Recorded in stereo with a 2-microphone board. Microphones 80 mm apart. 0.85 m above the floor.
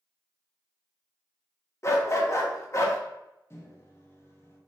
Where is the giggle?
I don't hear a giggle.